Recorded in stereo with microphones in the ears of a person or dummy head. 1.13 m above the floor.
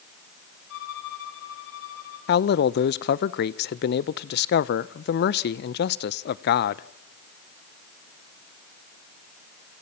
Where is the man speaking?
50° left (ahead or behind), 0.6 m.